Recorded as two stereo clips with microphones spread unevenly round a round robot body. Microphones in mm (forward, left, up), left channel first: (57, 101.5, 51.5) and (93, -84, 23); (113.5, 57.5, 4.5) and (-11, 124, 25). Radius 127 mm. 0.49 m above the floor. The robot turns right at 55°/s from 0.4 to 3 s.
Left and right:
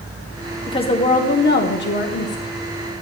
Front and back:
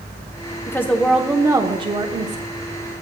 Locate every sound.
0.7 s a woman speaking: 30° left, 1.0 m; by 2.4 s 130° left, 1.0 m